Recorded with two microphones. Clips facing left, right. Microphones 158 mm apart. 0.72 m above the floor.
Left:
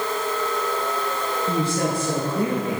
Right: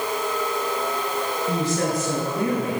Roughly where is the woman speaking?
Left.